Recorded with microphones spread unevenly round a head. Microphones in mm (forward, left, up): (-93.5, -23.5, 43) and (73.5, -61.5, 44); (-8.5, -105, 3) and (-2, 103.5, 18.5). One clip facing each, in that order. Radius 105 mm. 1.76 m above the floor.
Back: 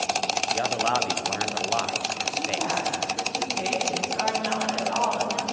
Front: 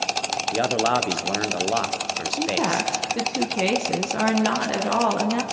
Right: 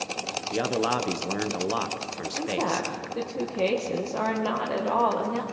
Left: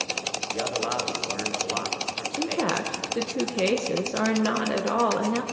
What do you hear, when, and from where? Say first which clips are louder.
0.5 s a man speaking: front 6 dB, right 4 dB; 60° right, 1.4 m
2.4 s a woman speaking: front 5 dB, left 1 dB; 20° left, 1.3 m